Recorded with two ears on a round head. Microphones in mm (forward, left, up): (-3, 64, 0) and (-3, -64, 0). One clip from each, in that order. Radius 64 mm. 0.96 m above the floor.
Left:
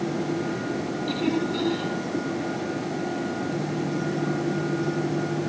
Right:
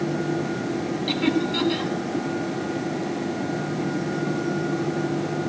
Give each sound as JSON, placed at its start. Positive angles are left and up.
{"t": 1.1, "sound": "laughter", "side_deg": -50, "distance_m": 6.0}